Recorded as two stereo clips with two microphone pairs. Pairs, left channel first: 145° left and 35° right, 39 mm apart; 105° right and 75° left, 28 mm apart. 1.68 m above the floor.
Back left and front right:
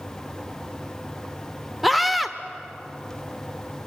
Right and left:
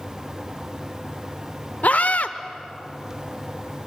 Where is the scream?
125° right, 1.0 m.